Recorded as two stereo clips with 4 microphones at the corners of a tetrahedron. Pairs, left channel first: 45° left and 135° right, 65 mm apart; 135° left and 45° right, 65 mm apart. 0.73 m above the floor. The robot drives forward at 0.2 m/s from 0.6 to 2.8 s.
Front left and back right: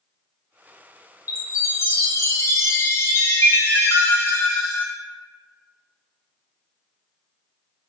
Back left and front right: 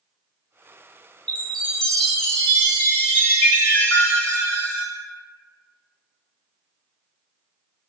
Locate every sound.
1.3 s a chime: 55° left, 0.9 m; by 4.9 s 80° left, 0.8 m